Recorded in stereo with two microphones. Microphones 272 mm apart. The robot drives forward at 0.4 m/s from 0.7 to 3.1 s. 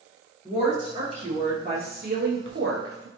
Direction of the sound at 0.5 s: 20° right (ahead or behind).